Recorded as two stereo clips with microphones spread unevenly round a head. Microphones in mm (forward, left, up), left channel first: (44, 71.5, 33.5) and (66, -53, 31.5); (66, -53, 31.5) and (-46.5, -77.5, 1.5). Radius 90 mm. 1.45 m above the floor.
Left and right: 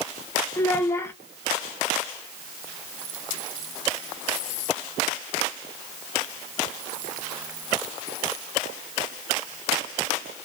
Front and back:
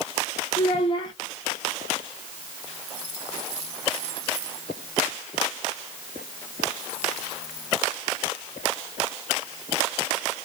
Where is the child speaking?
35° left, 0.5 m.